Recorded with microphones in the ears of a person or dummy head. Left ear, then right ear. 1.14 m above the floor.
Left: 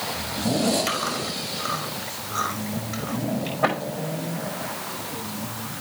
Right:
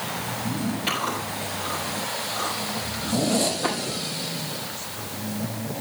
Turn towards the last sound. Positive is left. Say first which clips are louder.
# even
turn(degrees=50)  # may be behind; listen again after turning